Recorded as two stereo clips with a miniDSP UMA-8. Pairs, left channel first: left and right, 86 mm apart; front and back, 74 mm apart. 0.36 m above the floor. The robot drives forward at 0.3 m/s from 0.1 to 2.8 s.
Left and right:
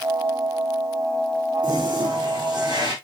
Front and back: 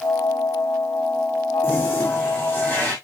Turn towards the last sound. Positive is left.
turn(degrees=-65)